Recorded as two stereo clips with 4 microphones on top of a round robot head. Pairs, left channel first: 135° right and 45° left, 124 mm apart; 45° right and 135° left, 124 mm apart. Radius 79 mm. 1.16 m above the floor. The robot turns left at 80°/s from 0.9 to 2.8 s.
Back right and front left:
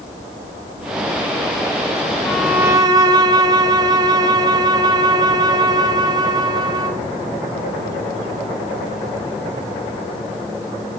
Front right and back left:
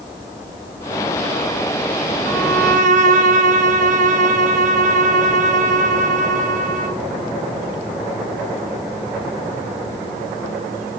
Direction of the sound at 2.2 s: 150° left.